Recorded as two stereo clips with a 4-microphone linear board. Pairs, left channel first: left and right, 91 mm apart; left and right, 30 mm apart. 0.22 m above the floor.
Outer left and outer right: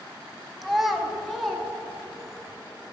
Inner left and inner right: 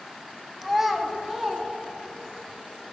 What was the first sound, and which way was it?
A child speaking, centre (ahead or behind).